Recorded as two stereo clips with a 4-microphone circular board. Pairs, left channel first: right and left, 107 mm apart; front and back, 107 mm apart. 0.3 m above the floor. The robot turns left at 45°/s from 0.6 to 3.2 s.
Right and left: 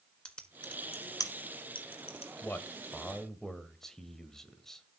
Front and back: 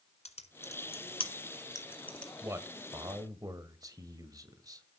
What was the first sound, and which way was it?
Typing on a keyboard, 10° right.